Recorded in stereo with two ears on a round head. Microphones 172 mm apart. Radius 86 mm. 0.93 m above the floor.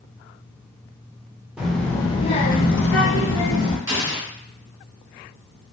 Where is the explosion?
20° right (ahead or behind), 1.3 m.